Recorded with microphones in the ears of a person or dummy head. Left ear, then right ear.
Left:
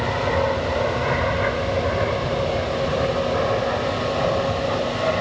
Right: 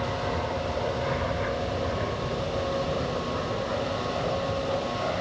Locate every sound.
0.0 s an aircraft: 75° left (ahead or behind); by 5.2 s 80° left